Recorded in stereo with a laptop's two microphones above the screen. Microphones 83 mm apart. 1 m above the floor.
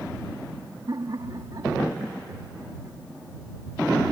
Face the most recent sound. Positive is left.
turn(degrees=-40)  # may be behind; listen again after turning